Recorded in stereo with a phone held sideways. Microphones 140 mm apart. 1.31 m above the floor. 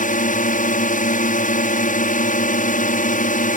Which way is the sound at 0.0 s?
65° left (ahead or behind).